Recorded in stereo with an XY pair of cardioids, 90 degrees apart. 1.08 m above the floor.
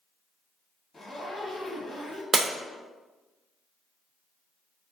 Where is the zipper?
40° left, 1.0 m.